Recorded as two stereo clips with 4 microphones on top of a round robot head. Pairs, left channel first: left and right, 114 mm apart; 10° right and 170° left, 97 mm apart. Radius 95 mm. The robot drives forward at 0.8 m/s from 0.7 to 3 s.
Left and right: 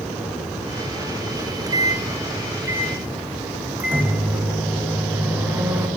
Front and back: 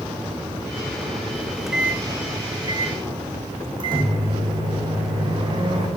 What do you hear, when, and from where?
1.4 s a microwave: 70° right, 0.7 m; by 5.9 s 160° right, 1.4 m